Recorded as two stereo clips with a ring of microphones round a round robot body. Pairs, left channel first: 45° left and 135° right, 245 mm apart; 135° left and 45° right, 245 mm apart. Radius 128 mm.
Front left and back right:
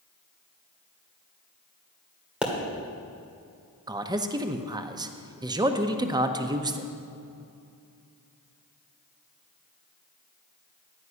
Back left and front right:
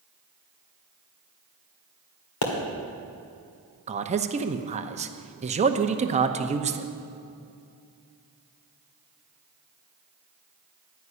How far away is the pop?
About 1.9 m.